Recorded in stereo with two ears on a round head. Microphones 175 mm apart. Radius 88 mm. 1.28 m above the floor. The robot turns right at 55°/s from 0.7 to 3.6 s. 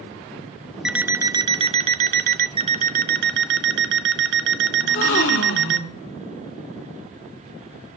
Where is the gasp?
70° left (ahead or behind), 3.5 m.